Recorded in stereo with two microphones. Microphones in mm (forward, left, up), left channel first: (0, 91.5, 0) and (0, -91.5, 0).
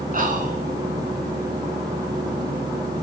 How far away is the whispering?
About 2 m.